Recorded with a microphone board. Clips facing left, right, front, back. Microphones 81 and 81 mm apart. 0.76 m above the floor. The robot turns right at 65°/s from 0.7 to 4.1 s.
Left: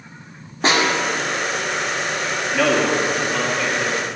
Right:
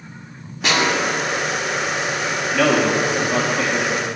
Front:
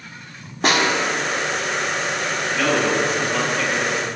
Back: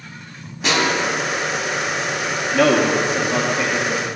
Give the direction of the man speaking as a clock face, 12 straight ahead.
6 o'clock.